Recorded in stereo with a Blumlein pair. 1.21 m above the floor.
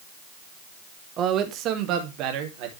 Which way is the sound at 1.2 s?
30° right.